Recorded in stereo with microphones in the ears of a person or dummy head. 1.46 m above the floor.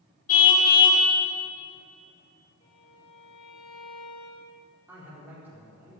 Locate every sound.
0.3 s a car horn: 40° left (ahead or behind), 6.5 m
2.6 s a violin: 30° left (ahead or behind), 5 m
4.9 s a man speaking: 10° right (ahead or behind), 4.5 m